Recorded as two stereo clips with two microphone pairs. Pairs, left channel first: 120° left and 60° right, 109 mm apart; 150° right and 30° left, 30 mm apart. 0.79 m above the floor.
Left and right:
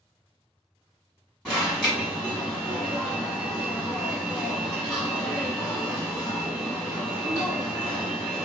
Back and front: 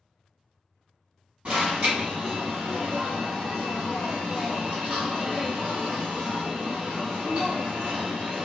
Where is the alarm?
35° left, 1.8 m.